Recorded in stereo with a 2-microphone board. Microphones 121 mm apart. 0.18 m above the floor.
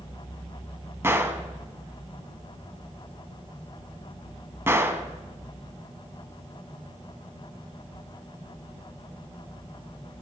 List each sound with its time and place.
1.0 s a gunshot: 20° right (ahead or behind), 0.8 m